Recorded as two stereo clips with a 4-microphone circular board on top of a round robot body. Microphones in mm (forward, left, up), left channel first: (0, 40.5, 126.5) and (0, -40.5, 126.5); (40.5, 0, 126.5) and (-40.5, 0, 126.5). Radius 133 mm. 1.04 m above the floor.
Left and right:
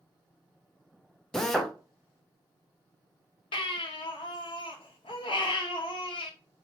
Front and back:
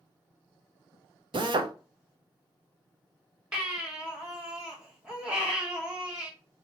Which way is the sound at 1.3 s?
175° left.